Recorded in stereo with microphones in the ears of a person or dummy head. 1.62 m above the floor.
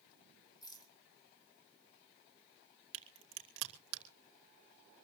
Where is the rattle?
20° left (ahead or behind), 2 m.